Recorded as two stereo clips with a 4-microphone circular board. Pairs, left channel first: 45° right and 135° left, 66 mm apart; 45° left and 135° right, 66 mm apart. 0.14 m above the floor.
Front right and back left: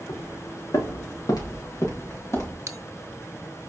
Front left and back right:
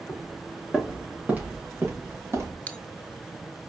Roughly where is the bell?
Left.